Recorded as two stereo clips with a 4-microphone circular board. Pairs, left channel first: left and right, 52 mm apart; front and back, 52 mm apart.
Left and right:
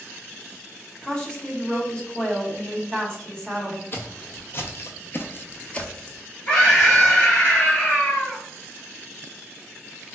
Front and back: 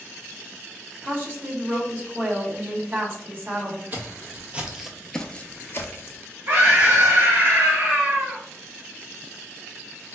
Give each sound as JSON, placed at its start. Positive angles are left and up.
{"t": 1.0, "sound": "a woman speaking", "azimuth_deg": 150, "distance_m": 1.0}
{"t": 3.9, "sound": "footsteps", "azimuth_deg": 130, "distance_m": 0.9}
{"t": 6.5, "sound": "a scream", "azimuth_deg": 145, "distance_m": 1.8}